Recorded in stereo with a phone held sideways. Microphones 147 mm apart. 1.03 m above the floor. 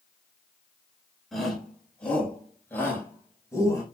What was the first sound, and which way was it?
A shout, centre (ahead or behind).